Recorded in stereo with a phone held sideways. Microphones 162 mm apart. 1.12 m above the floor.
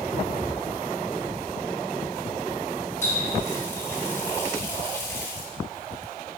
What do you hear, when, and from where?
3.0 s a running tap: 15° left (ahead or behind), 1.9 m